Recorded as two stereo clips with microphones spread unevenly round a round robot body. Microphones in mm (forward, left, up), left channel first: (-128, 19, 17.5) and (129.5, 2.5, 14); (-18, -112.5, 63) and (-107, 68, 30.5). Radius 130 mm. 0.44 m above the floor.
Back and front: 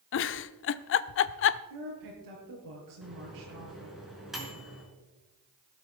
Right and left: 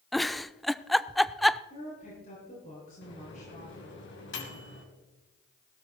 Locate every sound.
0.1 s a giggle: 160° right, 0.5 m
1.7 s a woman speaking: 5° right, 7.5 m
3.0 s a microwave: 90° right, 4 m